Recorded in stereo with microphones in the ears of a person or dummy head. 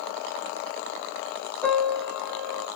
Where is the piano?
10° left (ahead or behind), 0.8 m.